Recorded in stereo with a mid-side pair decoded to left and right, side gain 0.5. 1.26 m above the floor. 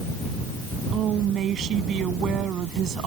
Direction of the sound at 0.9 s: 55° right.